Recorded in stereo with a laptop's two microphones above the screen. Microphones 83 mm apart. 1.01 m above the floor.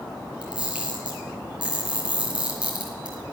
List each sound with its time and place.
0.4 s a camera shutter: 15° right (ahead or behind), 5.5 m